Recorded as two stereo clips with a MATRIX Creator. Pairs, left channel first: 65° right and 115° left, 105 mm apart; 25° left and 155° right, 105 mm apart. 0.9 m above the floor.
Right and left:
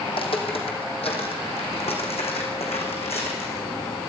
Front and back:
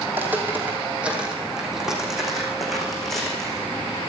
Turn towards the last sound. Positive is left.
turn(degrees=-60)